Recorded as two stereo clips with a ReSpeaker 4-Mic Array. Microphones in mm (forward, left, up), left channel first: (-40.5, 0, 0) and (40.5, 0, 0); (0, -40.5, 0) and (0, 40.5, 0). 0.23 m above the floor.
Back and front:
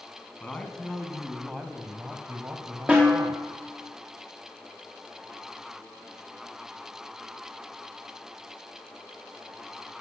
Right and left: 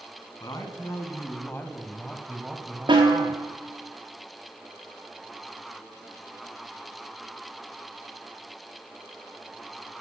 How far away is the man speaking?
About 2 m.